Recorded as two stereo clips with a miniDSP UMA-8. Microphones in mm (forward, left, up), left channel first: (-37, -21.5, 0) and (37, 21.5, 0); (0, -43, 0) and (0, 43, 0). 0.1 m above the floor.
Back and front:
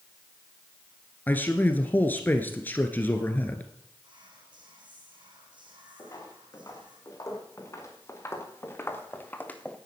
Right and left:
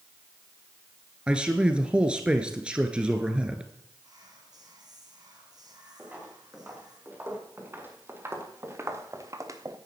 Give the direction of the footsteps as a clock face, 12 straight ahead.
7 o'clock.